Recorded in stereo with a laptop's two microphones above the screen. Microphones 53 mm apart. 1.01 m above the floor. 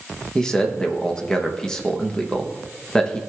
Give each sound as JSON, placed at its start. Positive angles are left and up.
{"t": 0.3, "sound": "a man speaking", "side_deg": 15, "distance_m": 0.8}